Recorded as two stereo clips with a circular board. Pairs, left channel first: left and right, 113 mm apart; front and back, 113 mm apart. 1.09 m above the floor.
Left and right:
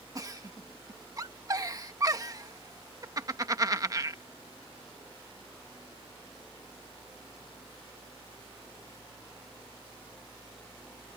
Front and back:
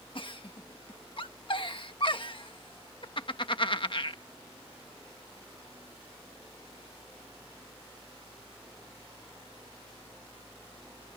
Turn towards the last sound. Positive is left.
turn(degrees=-35)